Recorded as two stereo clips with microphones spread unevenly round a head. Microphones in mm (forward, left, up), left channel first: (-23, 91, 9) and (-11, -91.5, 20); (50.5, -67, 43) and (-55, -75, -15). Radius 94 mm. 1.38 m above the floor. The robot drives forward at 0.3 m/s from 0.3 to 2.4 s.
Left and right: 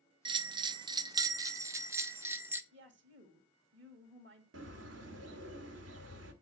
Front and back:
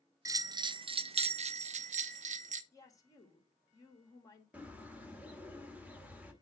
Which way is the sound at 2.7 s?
55° right.